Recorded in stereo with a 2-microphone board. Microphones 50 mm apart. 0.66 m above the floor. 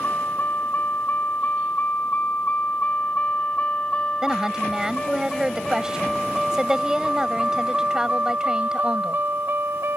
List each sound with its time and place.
0.0 s a vehicle: 45° left (ahead or behind); by 10.0 s 60° right (ahead or behind)
4.2 s a woman speaking: 15° right (ahead or behind)